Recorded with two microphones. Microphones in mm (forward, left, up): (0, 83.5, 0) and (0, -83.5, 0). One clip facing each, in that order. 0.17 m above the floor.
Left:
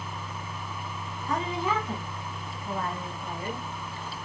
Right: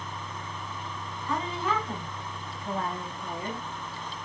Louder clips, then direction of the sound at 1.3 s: Left 1 dB; 20° left (ahead or behind).